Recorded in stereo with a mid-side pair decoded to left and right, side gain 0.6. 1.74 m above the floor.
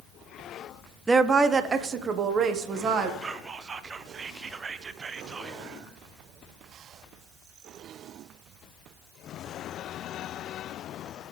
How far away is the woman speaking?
About 0.8 m.